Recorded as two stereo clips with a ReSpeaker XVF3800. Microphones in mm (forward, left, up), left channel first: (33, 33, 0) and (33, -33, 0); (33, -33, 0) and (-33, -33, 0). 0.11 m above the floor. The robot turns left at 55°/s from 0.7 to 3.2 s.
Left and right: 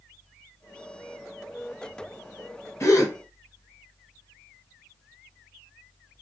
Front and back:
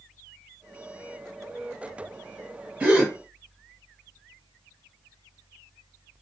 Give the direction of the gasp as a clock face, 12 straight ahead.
8 o'clock.